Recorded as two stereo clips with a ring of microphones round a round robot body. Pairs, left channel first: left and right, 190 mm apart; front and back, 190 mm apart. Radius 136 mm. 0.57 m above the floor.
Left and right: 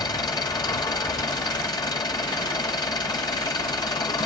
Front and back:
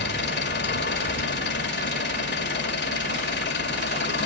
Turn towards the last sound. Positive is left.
turn(degrees=20)